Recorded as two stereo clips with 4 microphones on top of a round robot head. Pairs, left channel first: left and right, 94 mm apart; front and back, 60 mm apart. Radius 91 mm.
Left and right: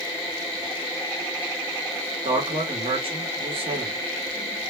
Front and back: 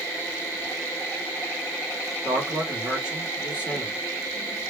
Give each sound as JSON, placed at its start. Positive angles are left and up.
{"t": 2.2, "sound": "a man speaking", "azimuth_deg": -110, "distance_m": 2.5}